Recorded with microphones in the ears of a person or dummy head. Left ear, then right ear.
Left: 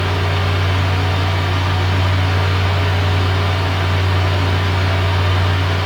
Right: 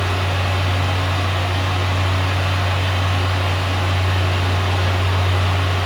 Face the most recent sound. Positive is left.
turn(degrees=-15)  # may be behind; listen again after turning